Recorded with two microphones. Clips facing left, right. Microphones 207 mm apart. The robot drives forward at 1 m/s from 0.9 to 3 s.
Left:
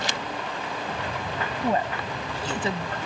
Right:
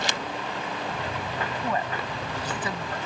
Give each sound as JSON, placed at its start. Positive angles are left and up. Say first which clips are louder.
{"t": 1.6, "sound": "a woman speaking", "louder": "left 6 dB", "side_deg": 30}